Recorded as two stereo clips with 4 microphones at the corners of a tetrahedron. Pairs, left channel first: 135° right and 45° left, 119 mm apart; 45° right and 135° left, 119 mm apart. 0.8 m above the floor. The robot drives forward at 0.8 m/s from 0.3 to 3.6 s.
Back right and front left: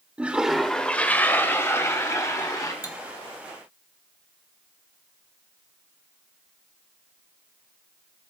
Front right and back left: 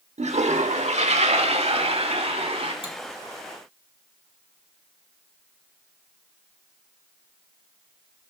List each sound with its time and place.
0.2 s a toilet flushing: 125° left, 0.8 m; by 2.7 s 165° left, 2.5 m
2.8 s cutlery clinking: 170° left, 1.9 m